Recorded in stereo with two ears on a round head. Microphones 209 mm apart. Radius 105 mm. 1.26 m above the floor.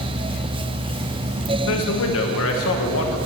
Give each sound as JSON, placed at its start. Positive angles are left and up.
{"t": 1.7, "sound": "a man speaking", "side_deg": 65, "distance_m": 1.2}